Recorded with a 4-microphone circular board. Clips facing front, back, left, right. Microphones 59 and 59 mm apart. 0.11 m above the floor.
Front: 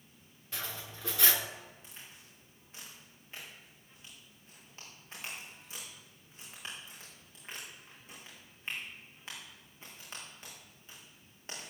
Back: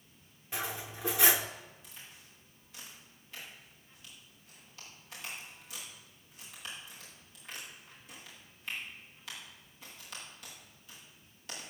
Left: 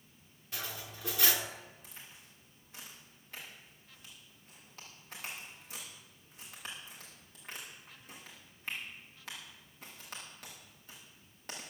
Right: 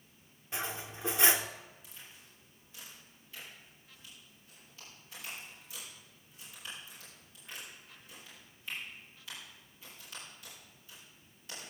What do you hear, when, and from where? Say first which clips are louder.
0.5 s cutlery clinking: back 4 dB, right 4 dB; 125° right, 0.7 m
1.8 s a crack: even, left 1 dB; 55° left, 7.5 m